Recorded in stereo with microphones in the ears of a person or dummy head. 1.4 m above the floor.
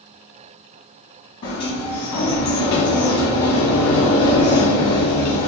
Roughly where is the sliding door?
Left.